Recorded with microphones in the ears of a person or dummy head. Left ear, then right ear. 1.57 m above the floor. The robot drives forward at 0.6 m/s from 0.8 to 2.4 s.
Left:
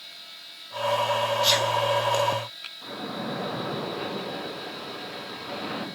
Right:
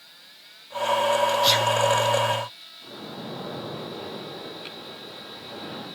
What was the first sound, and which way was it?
A sneeze, 10° right (ahead or behind).